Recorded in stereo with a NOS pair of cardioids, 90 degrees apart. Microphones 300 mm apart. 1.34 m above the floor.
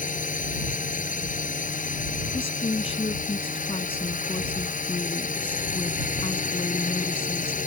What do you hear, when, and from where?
0.0 s a drone: 25° left
2.3 s a woman speaking: 20° left